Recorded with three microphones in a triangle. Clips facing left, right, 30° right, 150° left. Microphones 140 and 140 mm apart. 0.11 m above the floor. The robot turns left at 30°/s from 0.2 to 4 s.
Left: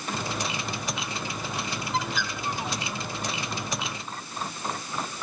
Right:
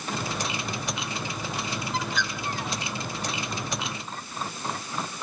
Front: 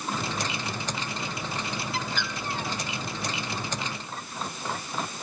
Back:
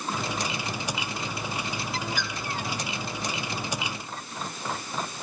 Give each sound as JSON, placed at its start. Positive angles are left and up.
{"t": 1.9, "sound": "a bird", "azimuth_deg": 180, "distance_m": 1.7}